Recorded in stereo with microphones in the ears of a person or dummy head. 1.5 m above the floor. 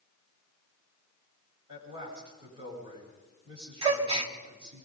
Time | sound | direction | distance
1.7 | a man speaking | 35° right (ahead or behind) | 9.5 m
3.8 | a gasp | 30° right (ahead or behind) | 1.0 m